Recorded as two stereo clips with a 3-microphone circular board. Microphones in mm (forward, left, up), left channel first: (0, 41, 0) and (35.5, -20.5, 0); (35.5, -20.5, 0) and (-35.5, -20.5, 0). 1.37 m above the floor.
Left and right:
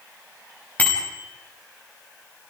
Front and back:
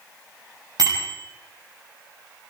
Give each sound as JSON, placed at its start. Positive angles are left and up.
{"t": 0.8, "sound": "a bicycle bell", "azimuth_deg": -175, "distance_m": 6.5}